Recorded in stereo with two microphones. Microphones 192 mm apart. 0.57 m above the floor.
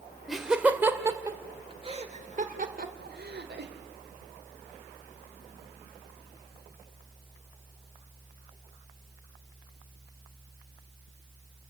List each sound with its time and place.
0.3 s laughter: centre (ahead or behind), 1.9 m; by 3.7 s 65° right (ahead or behind), 2 m